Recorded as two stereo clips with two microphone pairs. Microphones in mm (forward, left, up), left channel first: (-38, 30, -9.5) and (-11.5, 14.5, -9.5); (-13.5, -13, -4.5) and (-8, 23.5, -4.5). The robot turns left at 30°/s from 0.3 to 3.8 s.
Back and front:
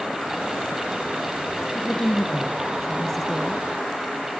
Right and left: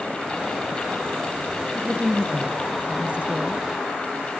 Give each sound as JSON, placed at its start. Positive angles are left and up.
{"t": 1.8, "sound": "a woman speaking", "azimuth_deg": 120, "distance_m": 1.3}